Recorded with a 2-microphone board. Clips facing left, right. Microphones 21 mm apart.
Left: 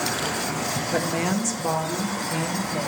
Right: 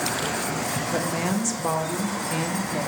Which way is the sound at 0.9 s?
15° left (ahead or behind).